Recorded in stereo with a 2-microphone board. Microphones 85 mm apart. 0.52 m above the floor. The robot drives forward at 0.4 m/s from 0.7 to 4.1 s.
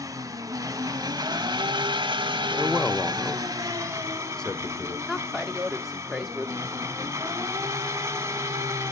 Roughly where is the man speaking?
Centre.